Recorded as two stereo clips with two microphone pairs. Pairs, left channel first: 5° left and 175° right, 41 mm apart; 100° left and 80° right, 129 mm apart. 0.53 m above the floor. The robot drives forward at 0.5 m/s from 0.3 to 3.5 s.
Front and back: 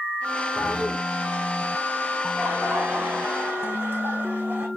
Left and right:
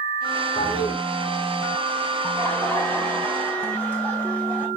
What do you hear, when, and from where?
0.6 s a toilet flushing: 45° left, 1.5 m; by 0.9 s 50° left, 1.4 m
2.2 s laughter: 175° left, 1.4 m